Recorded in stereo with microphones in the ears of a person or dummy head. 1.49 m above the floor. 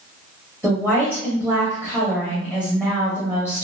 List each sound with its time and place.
0.6 s a woman speaking: 5° right (ahead or behind), 0.9 m